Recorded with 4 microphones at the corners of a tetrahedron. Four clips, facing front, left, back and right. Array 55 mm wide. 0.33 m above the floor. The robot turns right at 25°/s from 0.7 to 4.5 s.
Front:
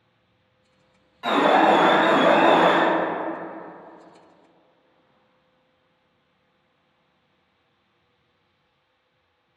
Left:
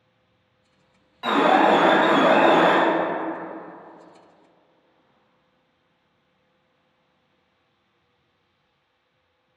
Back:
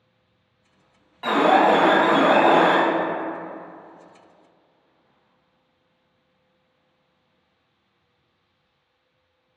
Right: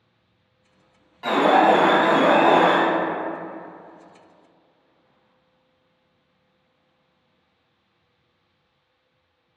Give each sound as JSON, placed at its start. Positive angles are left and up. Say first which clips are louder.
{"t": 1.2, "sound": "an alarm", "louder": "right 1 dB, back 1 dB", "azimuth_deg": 150, "distance_m": 0.6}